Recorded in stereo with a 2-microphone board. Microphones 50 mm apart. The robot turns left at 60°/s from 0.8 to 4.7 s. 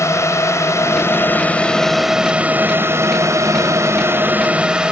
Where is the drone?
70° left; by 4.9 s 165° right.